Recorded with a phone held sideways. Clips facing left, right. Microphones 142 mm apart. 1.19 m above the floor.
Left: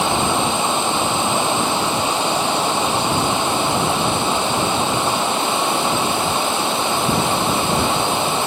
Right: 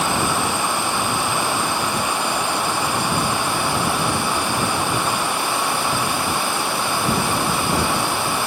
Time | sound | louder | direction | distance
0.0 | running water | left 3 dB | 20° left (ahead or behind) | ?